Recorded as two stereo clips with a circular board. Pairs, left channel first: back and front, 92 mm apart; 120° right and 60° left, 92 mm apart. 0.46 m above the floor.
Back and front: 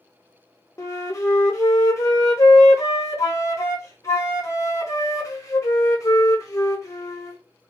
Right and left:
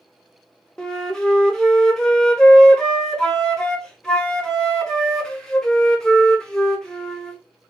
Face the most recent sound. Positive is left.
turn(degrees=160)